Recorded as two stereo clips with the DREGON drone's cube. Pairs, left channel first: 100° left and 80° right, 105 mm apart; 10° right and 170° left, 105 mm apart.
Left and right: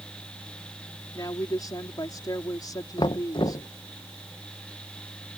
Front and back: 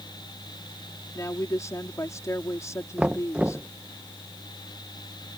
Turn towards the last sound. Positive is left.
turn(degrees=100)